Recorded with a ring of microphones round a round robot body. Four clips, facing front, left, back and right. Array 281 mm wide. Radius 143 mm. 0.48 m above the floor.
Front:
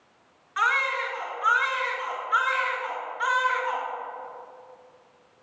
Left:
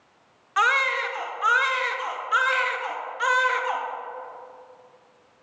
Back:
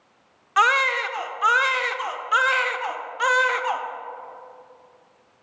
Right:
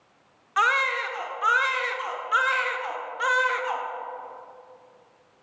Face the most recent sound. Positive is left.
turn(degrees=180)